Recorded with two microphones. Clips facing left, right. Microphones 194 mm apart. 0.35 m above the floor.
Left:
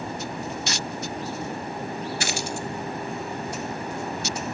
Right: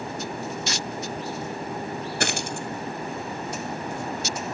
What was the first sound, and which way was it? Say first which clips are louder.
A dropped coin: right 1 dB; 55° right (ahead or behind).